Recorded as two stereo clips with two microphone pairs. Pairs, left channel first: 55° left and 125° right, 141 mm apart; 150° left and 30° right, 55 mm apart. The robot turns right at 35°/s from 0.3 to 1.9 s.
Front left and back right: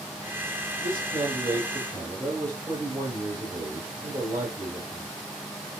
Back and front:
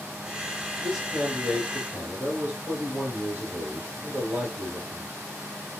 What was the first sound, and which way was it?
A man speaking, 110° right.